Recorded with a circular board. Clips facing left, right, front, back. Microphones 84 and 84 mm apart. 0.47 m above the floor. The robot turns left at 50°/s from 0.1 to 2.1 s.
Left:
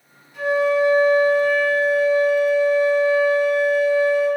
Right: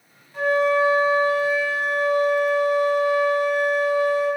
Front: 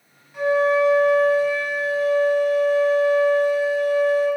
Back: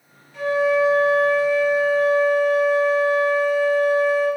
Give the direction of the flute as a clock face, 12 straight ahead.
2 o'clock.